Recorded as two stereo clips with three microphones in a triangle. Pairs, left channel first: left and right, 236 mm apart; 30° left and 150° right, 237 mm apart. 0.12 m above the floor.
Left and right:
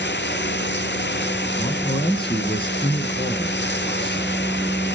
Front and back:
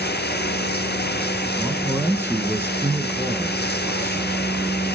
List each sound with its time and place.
0.0 s running water: 65° left, 0.7 m
1.6 s a man speaking: 135° left, 1.5 m